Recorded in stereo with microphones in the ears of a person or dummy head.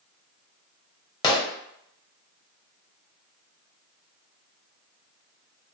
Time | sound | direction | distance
1.2 | a gunshot | 20° left (ahead or behind) | 0.7 m